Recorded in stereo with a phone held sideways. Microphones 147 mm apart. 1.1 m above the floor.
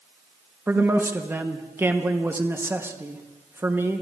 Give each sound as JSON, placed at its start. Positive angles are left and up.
{"t": 0.7, "sound": "a man speaking", "side_deg": -15, "distance_m": 1.0}